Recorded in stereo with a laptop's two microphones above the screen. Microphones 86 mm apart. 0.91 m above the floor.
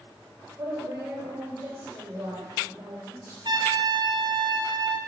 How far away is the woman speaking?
About 3 m.